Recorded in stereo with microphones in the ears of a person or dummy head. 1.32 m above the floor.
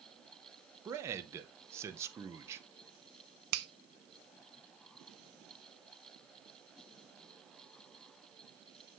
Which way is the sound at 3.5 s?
70° right (ahead or behind).